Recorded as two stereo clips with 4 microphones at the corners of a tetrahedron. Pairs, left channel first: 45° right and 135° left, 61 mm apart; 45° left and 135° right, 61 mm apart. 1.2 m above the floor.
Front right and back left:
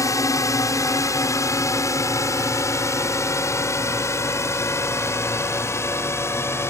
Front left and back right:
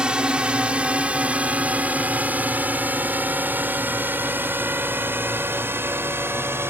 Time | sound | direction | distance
0.0 | a drone | 60° right | ?